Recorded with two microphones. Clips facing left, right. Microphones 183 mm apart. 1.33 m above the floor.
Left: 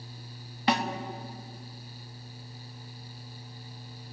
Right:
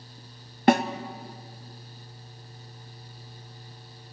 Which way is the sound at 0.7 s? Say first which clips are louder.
Right 8 dB; 50° right (ahead or behind).